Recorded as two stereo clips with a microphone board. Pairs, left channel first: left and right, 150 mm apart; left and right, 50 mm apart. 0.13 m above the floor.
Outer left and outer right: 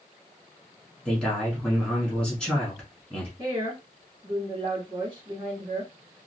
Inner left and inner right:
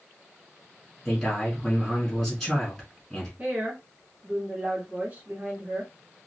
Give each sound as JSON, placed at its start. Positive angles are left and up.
{"t": 1.1, "sound": "a man speaking", "side_deg": 5, "distance_m": 1.2}
{"t": 3.4, "sound": "a woman speaking", "side_deg": -30, "distance_m": 1.8}